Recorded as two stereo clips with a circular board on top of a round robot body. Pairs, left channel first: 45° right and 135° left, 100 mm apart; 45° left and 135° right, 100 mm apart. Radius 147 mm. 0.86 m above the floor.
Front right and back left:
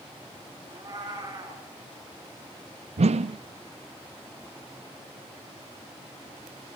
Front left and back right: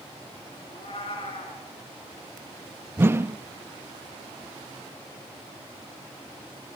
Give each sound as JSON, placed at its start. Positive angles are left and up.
{"t": 0.7, "sound": "a cat meowing", "azimuth_deg": 80, "distance_m": 5.5}
{"t": 3.0, "sound": "a whoosh", "azimuth_deg": 155, "distance_m": 0.6}